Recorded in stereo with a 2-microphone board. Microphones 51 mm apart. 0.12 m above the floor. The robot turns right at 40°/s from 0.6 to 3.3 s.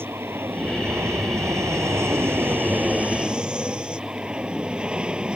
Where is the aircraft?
45° right (ahead or behind); by 5.4 s 20° right (ahead or behind).